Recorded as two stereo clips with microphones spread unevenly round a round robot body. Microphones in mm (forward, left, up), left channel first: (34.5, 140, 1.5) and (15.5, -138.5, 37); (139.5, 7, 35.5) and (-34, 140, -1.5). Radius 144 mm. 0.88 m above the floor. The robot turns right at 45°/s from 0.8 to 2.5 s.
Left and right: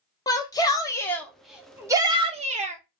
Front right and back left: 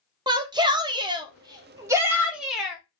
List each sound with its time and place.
0.3 s a shout: 135° left, 0.8 m; by 2.8 s 150° right, 0.8 m